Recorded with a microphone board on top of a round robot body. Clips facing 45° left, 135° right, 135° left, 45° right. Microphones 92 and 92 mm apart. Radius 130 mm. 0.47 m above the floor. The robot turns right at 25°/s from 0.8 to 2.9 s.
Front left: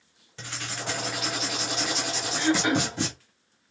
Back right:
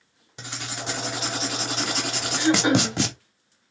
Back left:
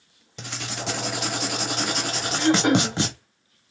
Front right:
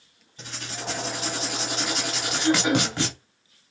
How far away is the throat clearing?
About 0.8 m.